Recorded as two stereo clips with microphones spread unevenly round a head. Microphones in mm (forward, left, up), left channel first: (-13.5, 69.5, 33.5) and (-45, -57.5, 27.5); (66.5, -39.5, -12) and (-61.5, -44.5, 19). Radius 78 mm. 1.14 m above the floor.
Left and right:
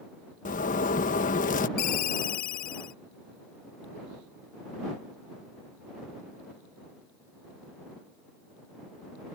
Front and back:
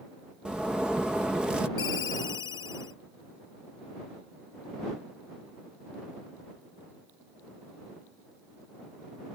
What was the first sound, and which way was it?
A zipper, 90° left.